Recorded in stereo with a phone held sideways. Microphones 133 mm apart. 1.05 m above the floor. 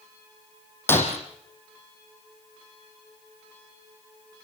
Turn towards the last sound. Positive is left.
turn(degrees=15)  # may be behind; listen again after turning